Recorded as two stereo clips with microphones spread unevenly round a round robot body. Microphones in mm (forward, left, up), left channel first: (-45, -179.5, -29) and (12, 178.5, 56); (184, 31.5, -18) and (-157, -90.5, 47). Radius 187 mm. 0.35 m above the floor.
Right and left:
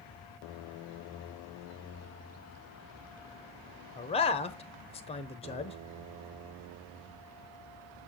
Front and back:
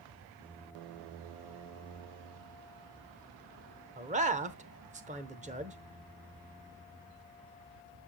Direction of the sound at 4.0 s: 90° right.